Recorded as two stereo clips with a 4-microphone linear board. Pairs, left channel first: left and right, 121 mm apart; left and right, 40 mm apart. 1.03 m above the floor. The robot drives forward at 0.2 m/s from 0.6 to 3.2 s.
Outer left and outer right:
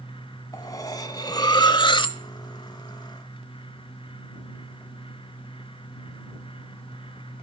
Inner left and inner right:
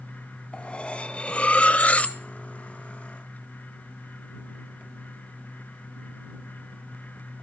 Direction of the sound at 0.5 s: 25° left (ahead or behind).